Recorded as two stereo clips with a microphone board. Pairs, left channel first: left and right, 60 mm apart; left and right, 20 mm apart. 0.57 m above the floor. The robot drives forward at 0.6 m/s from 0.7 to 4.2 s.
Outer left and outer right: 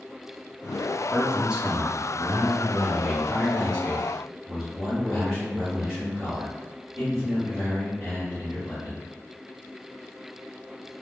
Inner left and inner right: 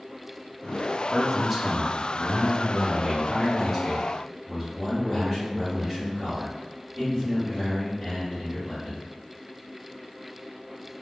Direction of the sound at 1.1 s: 15° right (ahead or behind).